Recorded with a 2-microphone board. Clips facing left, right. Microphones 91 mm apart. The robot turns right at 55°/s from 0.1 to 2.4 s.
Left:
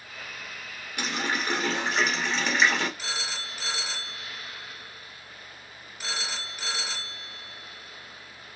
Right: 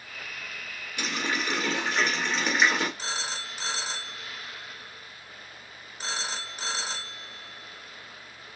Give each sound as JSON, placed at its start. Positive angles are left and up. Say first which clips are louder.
{"t": 1.0, "sound": "a running tap", "louder": "left 1 dB", "azimuth_deg": 110, "distance_m": 1.6}
{"t": 3.0, "sound": "a phone ringing", "louder": "right 1 dB", "side_deg": -35, "distance_m": 0.8}